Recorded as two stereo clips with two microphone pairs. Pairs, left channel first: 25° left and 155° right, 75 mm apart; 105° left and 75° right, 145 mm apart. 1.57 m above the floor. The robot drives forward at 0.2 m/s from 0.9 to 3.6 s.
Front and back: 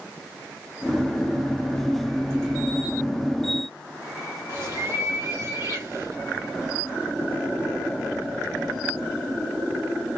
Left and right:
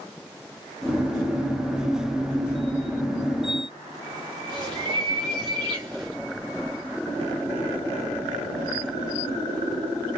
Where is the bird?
115° right, 1.3 m.